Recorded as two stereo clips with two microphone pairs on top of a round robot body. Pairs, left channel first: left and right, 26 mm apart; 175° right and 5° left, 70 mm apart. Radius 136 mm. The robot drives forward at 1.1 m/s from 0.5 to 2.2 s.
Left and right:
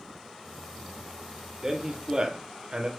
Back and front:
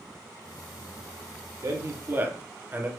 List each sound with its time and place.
1.6 s a man speaking: 30° right, 1.3 m; by 2.9 s 60° right, 0.9 m